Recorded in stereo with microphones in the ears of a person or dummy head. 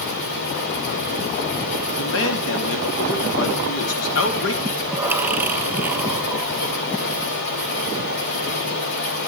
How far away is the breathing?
About 0.5 m.